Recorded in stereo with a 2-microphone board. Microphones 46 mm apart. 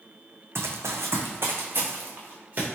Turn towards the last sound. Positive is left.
turn(degrees=-35)  # may be behind; listen again after turning